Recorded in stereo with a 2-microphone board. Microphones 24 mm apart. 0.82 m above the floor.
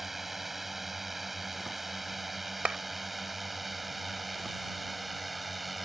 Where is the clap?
85° right.